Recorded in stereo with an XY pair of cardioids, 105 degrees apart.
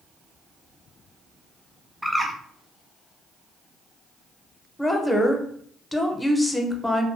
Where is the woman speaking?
15° left, 0.6 m.